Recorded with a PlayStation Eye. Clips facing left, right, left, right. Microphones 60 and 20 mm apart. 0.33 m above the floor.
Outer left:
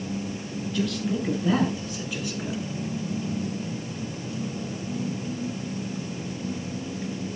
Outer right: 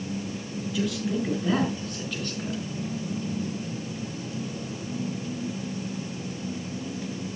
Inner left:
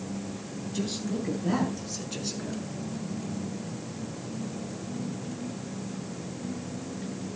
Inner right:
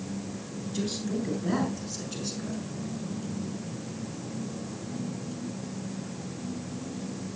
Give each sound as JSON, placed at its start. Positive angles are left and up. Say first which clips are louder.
{"t": 0.7, "sound": "a man speaking", "louder": "even, inner right 1 dB", "side_deg": -5, "distance_m": 6.0}